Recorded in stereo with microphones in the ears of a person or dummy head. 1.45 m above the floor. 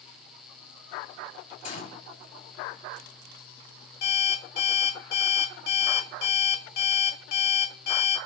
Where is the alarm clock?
65° left (ahead or behind), 2.5 m.